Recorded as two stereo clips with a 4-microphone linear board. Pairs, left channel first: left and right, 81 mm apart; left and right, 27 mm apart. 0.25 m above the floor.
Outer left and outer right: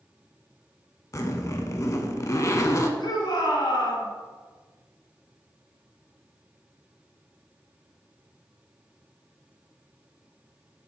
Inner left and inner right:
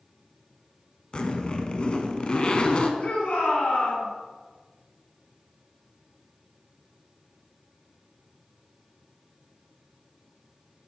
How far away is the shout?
About 1.9 m.